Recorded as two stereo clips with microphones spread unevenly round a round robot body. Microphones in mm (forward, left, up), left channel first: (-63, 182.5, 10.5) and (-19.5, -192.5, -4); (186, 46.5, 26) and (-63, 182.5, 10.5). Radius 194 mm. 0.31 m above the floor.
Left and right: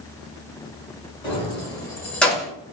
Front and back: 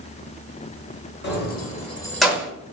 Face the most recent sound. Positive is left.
turn(degrees=-165)